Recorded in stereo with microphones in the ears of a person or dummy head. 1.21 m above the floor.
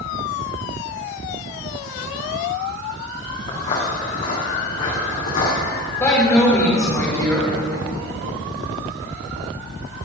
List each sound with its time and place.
3.5 s footsteps: 40° left (ahead or behind), 5 m; by 5.6 s 50° left (ahead or behind), 4 m
6.0 s a woman speaking: 20° left (ahead or behind), 3 m